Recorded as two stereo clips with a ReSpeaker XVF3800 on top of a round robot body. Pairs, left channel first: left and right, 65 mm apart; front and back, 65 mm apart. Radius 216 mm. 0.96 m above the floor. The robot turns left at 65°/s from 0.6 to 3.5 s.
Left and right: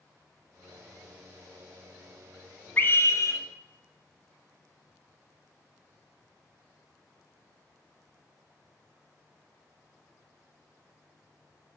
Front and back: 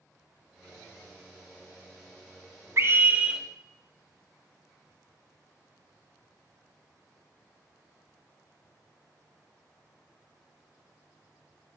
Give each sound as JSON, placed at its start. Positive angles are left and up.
{"t": 2.8, "sound": "a scream", "azimuth_deg": 145, "distance_m": 0.7}